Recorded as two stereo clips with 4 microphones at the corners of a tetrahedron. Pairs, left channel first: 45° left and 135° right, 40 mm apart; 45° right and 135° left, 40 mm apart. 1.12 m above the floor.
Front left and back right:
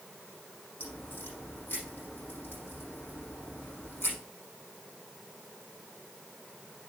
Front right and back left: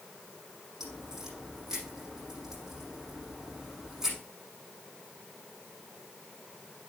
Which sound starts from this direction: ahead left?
A crack, at 0.8 s.